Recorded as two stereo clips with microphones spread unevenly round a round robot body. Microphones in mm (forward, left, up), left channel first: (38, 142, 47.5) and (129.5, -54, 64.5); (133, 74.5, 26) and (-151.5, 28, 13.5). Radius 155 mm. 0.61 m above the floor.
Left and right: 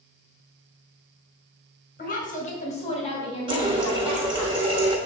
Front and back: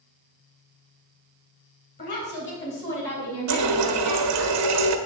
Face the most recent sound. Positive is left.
turn(degrees=-140)